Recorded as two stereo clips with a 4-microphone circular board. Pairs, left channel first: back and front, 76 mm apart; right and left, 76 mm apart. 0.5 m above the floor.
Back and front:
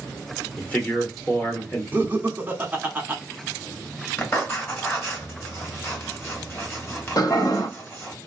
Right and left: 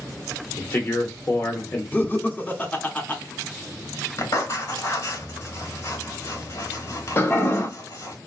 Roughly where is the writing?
Behind right.